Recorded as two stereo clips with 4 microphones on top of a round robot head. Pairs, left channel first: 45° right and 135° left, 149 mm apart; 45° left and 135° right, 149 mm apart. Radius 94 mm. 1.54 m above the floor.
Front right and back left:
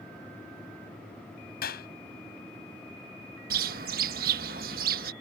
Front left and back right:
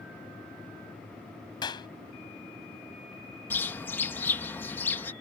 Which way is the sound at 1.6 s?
20° right.